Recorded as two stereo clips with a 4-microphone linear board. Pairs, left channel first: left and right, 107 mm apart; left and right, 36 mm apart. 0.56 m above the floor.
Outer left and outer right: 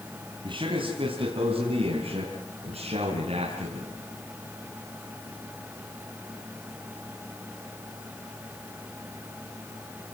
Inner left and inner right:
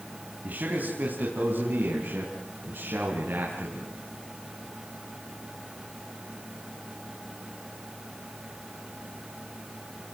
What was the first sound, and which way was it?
A man speaking, 50° right (ahead or behind).